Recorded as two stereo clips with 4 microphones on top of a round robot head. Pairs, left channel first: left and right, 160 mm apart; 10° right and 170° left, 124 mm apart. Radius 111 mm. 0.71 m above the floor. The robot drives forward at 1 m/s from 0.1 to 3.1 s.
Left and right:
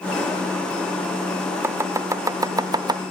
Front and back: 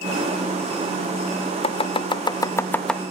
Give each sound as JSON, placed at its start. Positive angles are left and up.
{"t": 1.6, "sound": "chopping", "azimuth_deg": -20}